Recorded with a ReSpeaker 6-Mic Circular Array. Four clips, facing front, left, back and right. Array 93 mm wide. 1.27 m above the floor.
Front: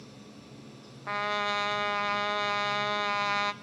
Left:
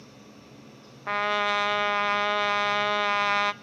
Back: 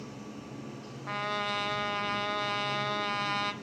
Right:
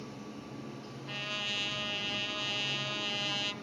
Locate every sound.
0.0 s running water: 140° right, 0.7 m
1.1 s a trumpet: 80° left, 0.7 m